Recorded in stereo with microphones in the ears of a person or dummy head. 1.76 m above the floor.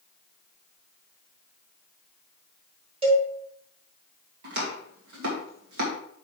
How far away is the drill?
I don't hear a drill.